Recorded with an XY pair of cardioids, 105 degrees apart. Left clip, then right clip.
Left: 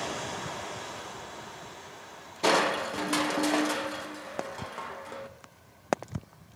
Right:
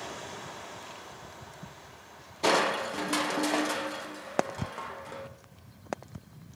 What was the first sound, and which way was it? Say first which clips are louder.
Crushing: left 1 dB; 5° left.